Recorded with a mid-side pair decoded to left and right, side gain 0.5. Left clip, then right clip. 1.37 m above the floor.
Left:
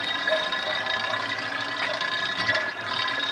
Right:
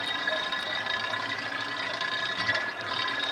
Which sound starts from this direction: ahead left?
A machine running, at 0.0 s.